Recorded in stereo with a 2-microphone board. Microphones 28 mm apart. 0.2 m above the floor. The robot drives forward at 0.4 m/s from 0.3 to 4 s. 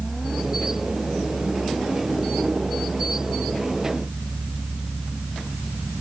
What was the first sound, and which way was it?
Only background noise.